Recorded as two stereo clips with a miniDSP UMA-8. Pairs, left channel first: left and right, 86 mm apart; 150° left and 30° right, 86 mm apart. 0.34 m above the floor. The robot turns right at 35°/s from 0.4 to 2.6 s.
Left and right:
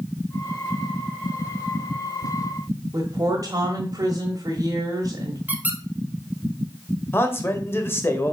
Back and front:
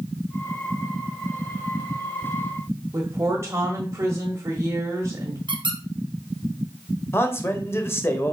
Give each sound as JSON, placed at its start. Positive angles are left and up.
{"t": 2.9, "sound": "a woman speaking", "azimuth_deg": -70, "distance_m": 1.3}
{"t": 5.5, "sound": "a squeak", "azimuth_deg": -15, "distance_m": 1.3}
{"t": 7.1, "sound": "a man speaking", "azimuth_deg": 125, "distance_m": 1.2}